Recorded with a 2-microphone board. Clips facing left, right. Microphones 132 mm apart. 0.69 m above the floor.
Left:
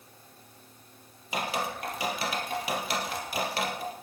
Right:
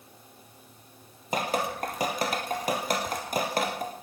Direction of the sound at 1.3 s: 45° right (ahead or behind).